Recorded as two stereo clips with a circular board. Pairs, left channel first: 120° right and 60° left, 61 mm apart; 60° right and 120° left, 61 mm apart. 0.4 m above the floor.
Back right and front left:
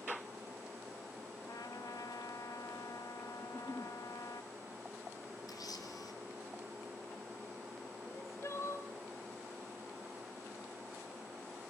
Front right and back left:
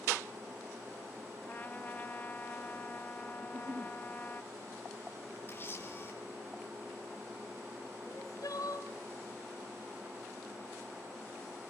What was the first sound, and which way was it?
A trumpet, 120° right.